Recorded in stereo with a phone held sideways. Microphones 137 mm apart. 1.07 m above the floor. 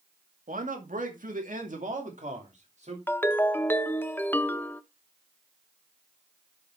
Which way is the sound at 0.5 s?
75° right (ahead or behind).